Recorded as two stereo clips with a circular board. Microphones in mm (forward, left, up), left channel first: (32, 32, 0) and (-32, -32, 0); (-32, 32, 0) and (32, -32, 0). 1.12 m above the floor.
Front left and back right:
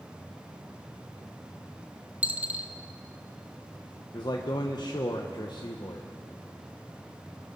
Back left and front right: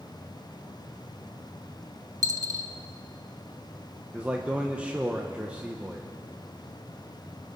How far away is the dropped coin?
About 0.8 m.